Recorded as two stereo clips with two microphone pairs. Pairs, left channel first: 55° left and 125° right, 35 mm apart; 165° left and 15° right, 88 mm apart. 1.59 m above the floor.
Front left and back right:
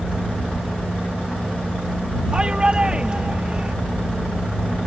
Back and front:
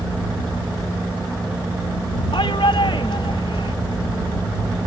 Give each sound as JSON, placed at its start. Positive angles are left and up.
{"t": 2.3, "sound": "a shout", "azimuth_deg": 175}